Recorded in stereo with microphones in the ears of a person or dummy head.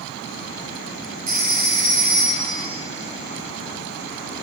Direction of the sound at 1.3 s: 45° right (ahead or behind).